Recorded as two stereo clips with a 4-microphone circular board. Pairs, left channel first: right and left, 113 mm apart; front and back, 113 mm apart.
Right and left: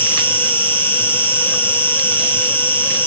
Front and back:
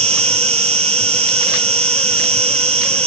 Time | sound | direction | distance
0.0 | an insect | 160° right | 1.4 m